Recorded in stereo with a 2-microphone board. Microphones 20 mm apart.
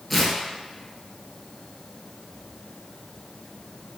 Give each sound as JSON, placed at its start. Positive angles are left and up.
{"t": 0.1, "sound": "tearing paper", "side_deg": 5, "distance_m": 0.8}